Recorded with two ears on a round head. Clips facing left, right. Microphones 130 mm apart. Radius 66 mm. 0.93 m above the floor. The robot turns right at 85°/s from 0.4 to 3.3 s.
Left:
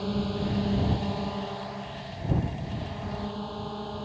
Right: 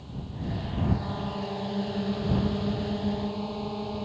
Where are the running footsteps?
I don't hear running footsteps.